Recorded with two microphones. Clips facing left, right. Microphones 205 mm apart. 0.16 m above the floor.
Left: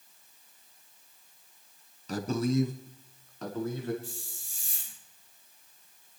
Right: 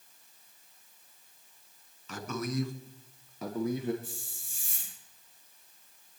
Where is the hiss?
60° right (ahead or behind), 5.5 m.